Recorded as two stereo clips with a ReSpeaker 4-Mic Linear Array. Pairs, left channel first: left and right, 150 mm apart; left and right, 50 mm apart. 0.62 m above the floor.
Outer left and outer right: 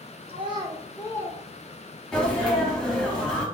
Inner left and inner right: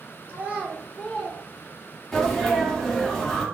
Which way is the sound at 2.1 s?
5° left (ahead or behind).